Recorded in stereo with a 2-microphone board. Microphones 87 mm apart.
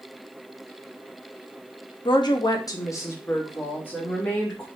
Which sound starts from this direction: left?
A woman speaking, at 2.0 s.